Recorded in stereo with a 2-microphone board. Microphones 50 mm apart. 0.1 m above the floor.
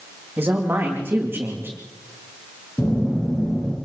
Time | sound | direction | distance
0.4 | a man speaking | 40° right (ahead or behind) | 8 m
2.8 | a phone buzzing | 30° left (ahead or behind) | 10 m